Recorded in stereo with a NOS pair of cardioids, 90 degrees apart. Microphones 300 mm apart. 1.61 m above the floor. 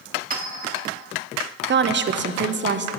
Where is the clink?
30° right, 2.5 m.